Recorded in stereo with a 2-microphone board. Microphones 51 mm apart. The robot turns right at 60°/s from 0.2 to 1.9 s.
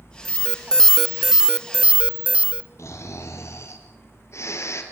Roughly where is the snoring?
Left.